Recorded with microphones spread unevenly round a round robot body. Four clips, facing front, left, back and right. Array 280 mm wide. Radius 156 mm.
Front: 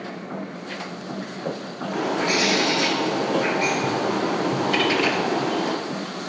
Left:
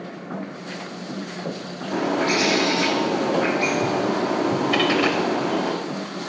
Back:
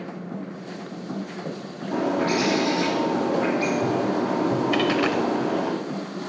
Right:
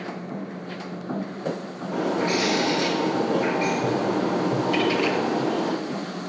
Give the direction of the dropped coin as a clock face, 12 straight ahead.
7 o'clock.